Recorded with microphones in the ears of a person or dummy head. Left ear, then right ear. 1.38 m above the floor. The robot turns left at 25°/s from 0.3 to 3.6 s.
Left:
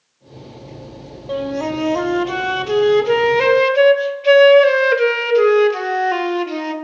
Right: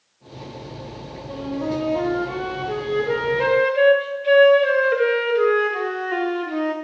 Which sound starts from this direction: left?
A flute, at 1.3 s.